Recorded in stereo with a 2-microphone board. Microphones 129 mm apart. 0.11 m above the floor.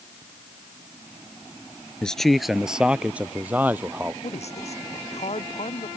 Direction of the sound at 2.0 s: 5° left (ahead or behind).